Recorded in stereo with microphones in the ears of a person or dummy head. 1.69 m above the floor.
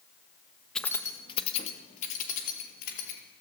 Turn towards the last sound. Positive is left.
turn(degrees=60)  # may be behind; listen again after turning